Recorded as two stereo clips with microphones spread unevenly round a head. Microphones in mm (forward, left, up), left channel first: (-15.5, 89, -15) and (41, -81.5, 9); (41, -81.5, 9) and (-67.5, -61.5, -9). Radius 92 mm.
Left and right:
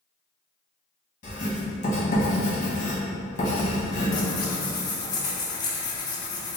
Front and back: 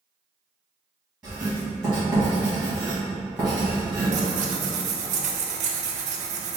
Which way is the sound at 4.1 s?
Straight behind.